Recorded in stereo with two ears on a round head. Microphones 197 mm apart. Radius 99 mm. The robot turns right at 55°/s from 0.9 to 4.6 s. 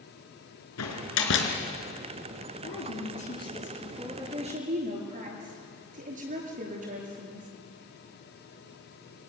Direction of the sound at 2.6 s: 110° left.